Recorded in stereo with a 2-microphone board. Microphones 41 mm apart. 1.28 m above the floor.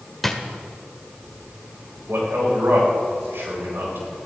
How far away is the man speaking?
About 7 m.